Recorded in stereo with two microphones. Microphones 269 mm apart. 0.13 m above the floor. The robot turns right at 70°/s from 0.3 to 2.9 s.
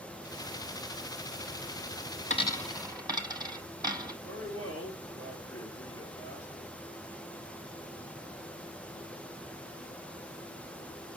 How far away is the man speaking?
About 1.8 m.